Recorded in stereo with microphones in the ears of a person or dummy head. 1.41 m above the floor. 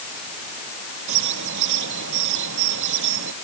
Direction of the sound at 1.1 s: 70° right (ahead or behind).